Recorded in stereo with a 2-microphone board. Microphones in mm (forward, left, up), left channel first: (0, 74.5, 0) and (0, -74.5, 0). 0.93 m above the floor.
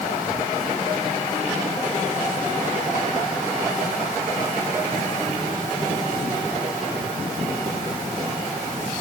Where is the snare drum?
No snare drum in this recording.